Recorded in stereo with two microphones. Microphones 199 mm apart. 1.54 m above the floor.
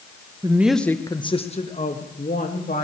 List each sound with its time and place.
0.4 s a woman speaking: 20° right (ahead or behind), 0.9 m; by 2.8 s 50° left (ahead or behind), 3 m